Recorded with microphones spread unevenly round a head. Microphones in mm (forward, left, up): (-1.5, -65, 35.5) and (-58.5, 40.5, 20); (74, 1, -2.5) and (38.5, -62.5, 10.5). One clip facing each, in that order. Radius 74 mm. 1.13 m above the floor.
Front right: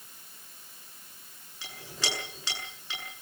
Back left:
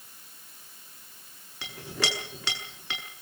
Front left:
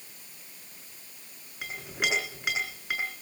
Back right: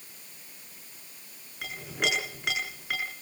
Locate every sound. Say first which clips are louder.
1.6 s a clink: back left 5 dB, back right 1 dB; 150° left, 7 m